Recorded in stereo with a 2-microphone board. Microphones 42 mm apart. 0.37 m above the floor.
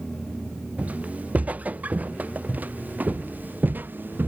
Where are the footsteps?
35° right (ahead or behind); by 4.3 s 55° right (ahead or behind).